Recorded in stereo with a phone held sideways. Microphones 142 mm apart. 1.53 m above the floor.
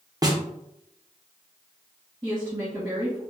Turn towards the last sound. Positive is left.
turn(degrees=-15)  # may be behind; listen again after turning